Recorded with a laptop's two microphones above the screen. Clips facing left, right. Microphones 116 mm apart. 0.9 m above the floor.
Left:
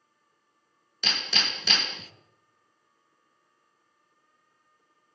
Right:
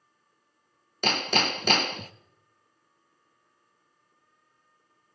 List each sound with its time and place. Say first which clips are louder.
1.0 s hammering: right 8 dB; 50° right (ahead or behind), 0.5 m